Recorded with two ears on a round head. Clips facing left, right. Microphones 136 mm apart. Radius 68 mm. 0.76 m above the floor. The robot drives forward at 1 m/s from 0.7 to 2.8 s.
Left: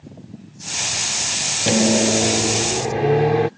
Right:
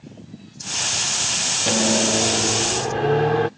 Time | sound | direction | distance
1.7 | a microwave | 20° left (ahead or behind) | ?